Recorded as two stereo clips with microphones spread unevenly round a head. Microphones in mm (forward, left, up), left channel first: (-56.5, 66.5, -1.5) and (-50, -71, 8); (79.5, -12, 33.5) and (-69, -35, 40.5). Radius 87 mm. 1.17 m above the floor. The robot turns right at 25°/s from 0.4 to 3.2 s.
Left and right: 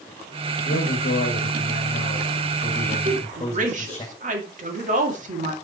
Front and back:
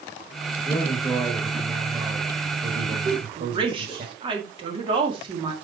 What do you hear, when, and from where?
0.7 s a man speaking: 85° left, 1.8 m; by 4.0 s 145° left, 1.8 m
3.0 s a woman speaking: 120° right, 2 m; by 5.5 s 115° right, 2 m